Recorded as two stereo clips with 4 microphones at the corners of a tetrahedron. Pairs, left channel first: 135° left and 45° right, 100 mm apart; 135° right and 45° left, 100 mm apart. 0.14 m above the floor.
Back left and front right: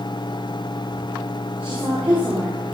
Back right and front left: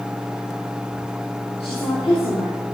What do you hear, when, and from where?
1.6 s a woman speaking: 120° right, 6.5 m